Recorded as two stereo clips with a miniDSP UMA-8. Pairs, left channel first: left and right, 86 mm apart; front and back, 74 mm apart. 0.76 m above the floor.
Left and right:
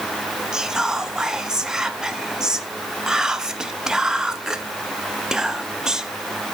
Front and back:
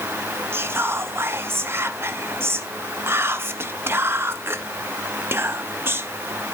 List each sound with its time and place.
0.5 s whispering: 170° right, 0.7 m